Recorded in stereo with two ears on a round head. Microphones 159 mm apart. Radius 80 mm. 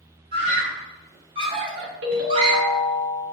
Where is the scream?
30° right (ahead or behind), 3.5 m.